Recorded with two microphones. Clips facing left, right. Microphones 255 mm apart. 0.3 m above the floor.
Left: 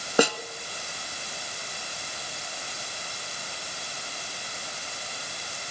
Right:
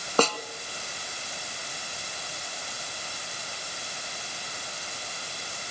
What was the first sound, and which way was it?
A snare drum, 10° left (ahead or behind).